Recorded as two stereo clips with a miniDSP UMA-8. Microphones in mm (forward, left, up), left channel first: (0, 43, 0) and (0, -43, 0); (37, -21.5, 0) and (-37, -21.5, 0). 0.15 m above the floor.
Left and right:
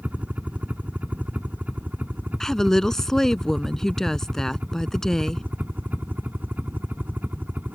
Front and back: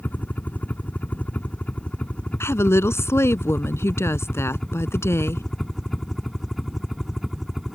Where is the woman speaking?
10° left.